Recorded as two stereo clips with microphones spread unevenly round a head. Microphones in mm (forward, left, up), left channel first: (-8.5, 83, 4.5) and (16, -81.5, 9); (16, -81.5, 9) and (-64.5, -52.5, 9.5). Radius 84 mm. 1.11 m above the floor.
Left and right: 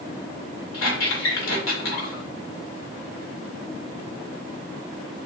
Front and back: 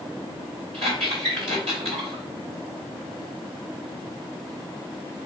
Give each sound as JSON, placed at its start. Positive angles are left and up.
{"t": 0.7, "sound": "a squeak", "azimuth_deg": 110, "distance_m": 2.0}